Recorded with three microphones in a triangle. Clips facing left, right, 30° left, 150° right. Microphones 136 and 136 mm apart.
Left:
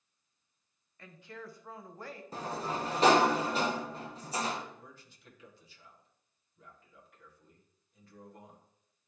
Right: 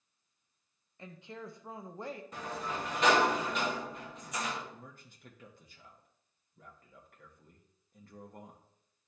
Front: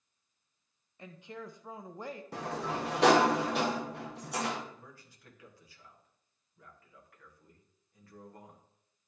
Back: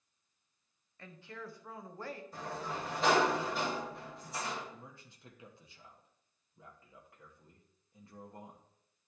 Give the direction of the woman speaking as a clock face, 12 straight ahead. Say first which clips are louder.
Right 2 dB, front 3 dB; 1 o'clock.